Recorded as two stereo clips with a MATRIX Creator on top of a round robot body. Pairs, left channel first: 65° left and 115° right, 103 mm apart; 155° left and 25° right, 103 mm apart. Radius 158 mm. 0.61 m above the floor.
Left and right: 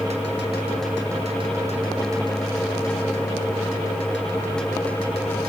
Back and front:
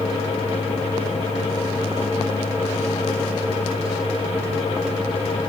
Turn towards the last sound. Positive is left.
No sound to turn to.